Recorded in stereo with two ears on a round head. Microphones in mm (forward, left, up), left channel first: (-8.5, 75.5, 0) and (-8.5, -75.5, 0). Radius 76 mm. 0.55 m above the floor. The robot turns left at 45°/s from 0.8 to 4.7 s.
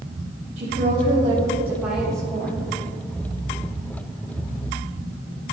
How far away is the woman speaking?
About 1.7 m.